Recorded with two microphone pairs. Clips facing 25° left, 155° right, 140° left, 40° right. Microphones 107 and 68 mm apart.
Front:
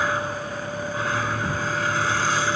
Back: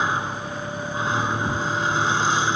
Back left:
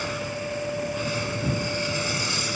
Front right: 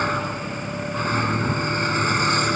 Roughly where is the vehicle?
Right.